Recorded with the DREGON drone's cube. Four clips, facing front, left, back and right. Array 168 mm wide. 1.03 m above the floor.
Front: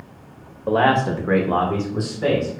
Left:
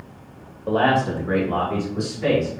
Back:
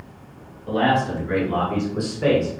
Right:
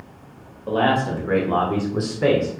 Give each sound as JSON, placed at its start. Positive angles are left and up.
{"t": 0.7, "sound": "a man speaking", "azimuth_deg": 15, "distance_m": 1.6}